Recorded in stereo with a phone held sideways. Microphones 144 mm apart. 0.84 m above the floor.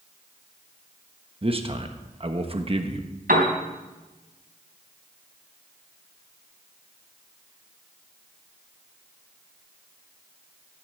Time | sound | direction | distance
1.4 | a man speaking | 40° right (ahead or behind) | 1.1 m
3.3 | a piano | 80° right | 3.5 m